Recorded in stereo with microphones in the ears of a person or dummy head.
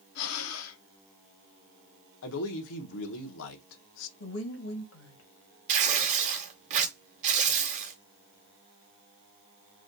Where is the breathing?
80° left, 0.6 m.